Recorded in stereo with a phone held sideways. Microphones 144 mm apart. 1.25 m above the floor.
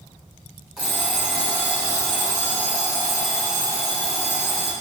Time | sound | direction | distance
0.8 | an alarm clock | centre (ahead or behind) | 1.2 m